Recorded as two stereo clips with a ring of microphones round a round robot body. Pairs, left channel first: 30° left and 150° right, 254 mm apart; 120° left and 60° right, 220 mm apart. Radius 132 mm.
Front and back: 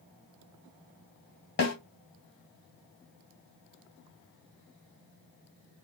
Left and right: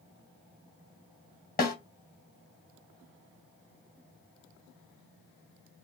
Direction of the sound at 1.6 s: 75° left.